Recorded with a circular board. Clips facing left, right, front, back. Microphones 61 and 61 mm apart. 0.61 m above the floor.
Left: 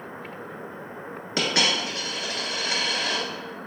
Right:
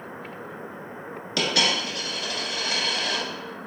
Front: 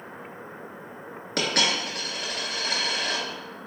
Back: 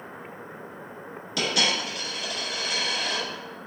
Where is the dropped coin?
30° left, 1.2 m.